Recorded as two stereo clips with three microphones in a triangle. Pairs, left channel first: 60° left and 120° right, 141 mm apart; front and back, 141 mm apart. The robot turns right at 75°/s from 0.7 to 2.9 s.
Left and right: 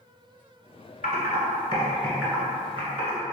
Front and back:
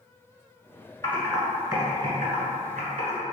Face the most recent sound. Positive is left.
turn(degrees=-155)